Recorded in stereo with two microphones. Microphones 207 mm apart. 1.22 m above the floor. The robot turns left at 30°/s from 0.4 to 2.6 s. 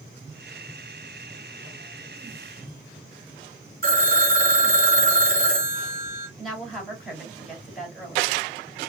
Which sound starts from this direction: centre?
A woman speaking, at 6.4 s.